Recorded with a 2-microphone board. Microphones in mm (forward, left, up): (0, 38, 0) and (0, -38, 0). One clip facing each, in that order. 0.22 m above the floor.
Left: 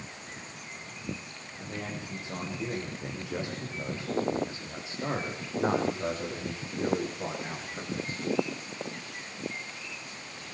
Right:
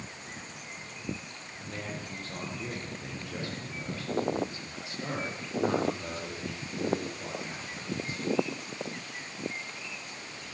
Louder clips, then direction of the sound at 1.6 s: Left 1 dB; 10° left (ahead or behind).